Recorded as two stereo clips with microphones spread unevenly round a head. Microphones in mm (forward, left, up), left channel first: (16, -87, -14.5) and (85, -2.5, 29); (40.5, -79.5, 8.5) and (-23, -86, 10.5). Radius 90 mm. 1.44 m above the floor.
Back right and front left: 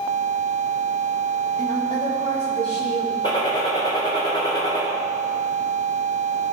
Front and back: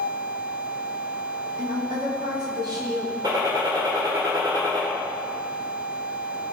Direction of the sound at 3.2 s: 155° left.